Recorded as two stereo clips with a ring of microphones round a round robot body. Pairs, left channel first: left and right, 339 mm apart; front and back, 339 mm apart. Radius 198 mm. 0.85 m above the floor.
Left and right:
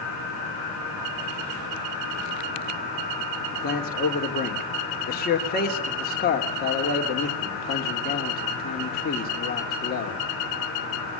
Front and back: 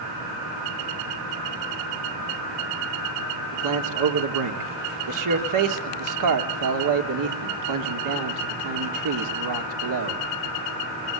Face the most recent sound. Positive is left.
turn(degrees=155)